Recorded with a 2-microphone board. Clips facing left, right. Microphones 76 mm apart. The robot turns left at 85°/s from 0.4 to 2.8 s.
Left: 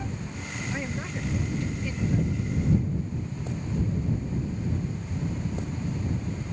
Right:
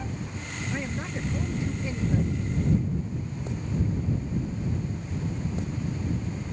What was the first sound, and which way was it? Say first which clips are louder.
A man speaking: right 1 dB; 5° left (ahead or behind).